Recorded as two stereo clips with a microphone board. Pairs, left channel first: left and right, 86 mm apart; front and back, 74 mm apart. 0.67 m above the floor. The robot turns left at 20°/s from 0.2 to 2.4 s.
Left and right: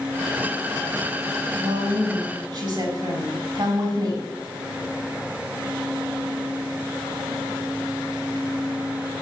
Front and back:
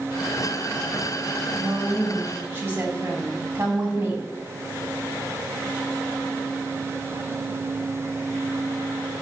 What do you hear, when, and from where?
1.6 s a woman speaking: 100° right, 3.5 m; by 4.3 s 115° right, 3.5 m